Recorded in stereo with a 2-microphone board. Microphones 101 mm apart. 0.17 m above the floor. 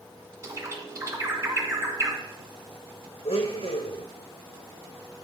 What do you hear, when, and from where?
0.4 s a bird: 30° right (ahead or behind), 1.5 m
3.2 s a blender: 70° left (ahead or behind), 2.5 m